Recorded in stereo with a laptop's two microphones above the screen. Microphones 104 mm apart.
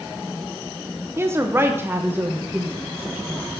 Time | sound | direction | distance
1.2 | a woman speaking | 25° right (ahead or behind) | 0.6 m